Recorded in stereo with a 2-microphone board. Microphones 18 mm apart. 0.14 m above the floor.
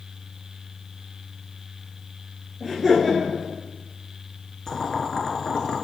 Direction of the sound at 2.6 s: 10° right (ahead or behind).